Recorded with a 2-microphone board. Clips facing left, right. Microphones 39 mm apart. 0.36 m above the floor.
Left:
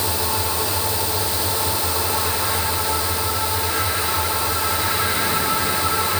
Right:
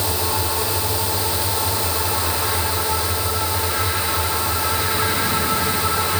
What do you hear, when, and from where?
Only background noise.